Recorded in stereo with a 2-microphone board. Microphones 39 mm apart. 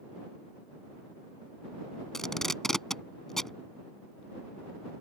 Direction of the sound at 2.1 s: 10° left (ahead or behind).